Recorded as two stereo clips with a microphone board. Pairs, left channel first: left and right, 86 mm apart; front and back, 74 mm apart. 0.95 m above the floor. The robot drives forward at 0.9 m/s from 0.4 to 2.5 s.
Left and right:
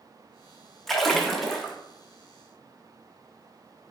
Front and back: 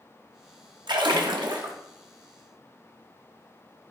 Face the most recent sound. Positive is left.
turn(degrees=180)